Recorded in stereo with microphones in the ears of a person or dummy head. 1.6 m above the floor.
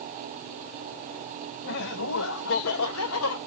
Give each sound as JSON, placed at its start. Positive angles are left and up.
{"t": 1.6, "sound": "laughter", "side_deg": 60, "distance_m": 1.5}